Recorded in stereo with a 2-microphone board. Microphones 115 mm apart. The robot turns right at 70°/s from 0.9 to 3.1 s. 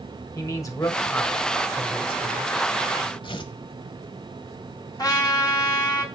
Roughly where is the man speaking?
Behind left.